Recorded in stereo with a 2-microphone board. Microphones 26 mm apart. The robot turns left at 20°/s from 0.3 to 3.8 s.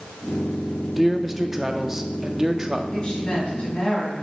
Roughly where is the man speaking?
Centre.